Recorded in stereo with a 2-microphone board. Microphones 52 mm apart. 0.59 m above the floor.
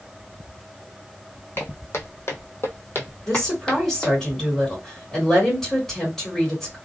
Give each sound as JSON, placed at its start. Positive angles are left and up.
{"t": 1.6, "sound": "footsteps", "side_deg": 50, "distance_m": 1.4}
{"t": 3.3, "sound": "a woman speaking", "side_deg": 10, "distance_m": 1.7}